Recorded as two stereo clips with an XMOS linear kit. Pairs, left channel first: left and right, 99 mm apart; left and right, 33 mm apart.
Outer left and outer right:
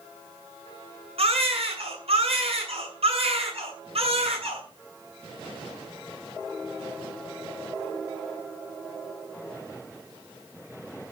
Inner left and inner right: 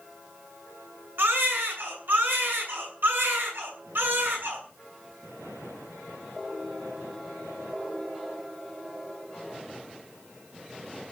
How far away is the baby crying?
About 7.5 m.